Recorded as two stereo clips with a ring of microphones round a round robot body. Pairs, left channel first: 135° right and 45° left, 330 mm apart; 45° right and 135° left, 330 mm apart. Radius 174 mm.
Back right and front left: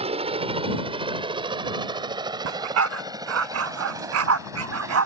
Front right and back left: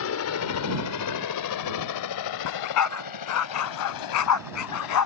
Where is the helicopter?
20° right; by 5.1 s 35° right.